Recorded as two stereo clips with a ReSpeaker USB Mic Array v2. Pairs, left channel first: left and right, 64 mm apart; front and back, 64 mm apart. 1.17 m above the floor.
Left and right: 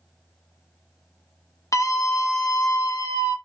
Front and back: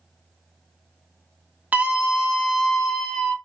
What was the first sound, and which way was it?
A scream, 115° left.